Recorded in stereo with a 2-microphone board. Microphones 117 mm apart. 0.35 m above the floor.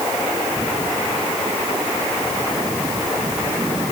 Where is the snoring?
No snoring in this recording.